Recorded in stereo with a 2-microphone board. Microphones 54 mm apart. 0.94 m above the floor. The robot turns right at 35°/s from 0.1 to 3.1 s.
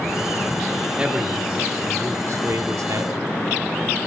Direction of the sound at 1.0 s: 160° right.